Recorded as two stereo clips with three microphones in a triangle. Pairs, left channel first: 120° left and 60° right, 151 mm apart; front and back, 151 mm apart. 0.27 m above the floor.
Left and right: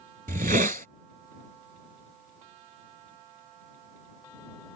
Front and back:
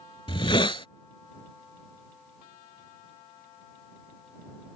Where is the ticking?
No ticking in this recording.